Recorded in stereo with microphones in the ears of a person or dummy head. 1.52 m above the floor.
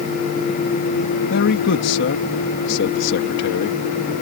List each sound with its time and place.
1.3 s a man speaking: 65° left (ahead or behind)